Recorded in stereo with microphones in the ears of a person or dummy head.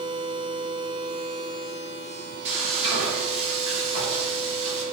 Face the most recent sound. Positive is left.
turn(degrees=-35)  # may be behind; listen again after turning